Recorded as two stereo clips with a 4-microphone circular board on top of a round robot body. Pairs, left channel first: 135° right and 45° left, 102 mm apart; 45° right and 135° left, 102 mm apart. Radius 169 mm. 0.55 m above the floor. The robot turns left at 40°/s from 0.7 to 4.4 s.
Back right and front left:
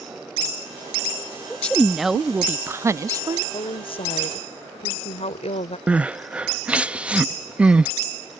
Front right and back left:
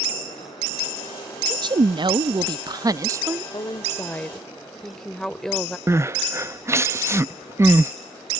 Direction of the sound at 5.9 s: 110° left.